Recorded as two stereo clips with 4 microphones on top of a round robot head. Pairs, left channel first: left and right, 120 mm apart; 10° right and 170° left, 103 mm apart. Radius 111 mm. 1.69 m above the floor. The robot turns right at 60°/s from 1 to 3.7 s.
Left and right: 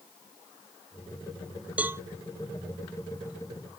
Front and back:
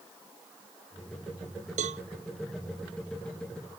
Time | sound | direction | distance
1.8 | a cowbell | 170° right | ?